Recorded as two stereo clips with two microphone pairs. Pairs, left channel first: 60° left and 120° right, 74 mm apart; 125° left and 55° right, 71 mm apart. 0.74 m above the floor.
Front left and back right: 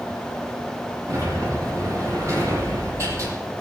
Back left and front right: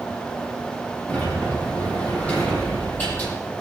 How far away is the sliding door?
About 9.5 m.